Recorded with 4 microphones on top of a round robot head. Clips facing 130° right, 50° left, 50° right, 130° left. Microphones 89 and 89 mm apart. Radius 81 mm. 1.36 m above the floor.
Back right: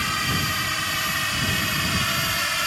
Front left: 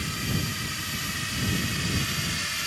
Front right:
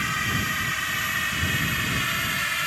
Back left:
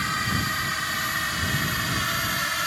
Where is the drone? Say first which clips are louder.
Back right 5 dB, back left 1 dB; 155° right; by 2.7 s 165° right.